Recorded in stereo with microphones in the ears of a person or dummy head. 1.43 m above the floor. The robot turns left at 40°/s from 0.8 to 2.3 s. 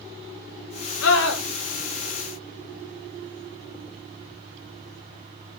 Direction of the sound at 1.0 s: 75° left (ahead or behind).